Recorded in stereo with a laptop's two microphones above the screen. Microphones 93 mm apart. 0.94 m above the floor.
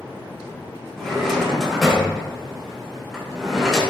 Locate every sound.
1.0 s a drawer: 5° left (ahead or behind), 0.7 m